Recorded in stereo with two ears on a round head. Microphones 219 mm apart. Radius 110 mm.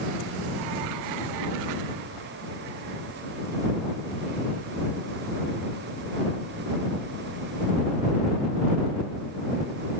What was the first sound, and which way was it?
Only background noise.